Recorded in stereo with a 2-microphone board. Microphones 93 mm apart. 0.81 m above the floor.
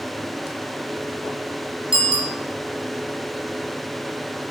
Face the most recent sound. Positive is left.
turn(degrees=-65)  # may be behind; listen again after turning